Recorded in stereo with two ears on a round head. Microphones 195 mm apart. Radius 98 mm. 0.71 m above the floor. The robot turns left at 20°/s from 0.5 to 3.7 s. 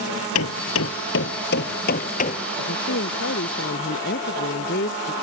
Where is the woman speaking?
70° left (ahead or behind); by 5.1 s 50° left (ahead or behind).